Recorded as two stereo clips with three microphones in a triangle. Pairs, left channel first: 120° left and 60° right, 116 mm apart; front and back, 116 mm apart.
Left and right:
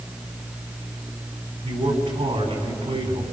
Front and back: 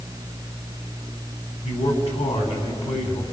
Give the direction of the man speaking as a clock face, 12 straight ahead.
1 o'clock.